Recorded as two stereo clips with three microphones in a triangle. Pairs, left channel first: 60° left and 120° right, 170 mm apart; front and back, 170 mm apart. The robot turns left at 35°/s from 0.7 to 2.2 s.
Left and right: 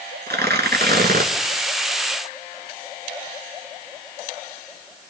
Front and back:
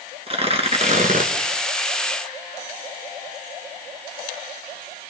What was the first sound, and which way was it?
Tearing paper, 125° right.